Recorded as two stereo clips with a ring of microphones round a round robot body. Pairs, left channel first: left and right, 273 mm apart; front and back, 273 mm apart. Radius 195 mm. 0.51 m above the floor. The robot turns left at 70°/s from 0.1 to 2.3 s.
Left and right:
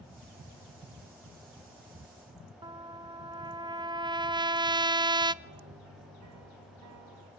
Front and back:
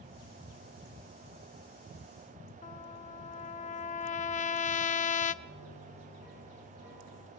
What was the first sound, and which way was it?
A trumpet, 30° right.